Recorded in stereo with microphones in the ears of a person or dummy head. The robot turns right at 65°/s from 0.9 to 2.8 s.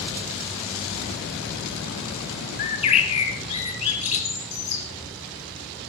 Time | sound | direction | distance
2.6 | a bird | 50° left (ahead or behind) | 1.6 m